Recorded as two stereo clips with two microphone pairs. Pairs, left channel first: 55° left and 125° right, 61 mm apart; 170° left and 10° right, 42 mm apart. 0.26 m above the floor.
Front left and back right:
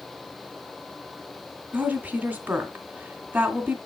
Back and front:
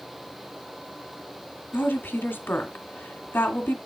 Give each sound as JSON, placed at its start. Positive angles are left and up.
{"t": 1.7, "sound": "a woman speaking", "azimuth_deg": 180, "distance_m": 2.0}